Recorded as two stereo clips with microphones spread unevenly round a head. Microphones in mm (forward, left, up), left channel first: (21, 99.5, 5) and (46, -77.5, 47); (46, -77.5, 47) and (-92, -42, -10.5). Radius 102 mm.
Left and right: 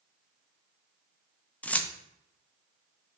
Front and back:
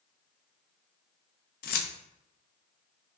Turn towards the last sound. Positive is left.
turn(degrees=15)